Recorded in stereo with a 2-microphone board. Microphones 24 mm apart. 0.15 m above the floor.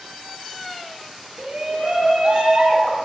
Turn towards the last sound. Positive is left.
turn(degrees=-60)  # may be behind; listen again after turning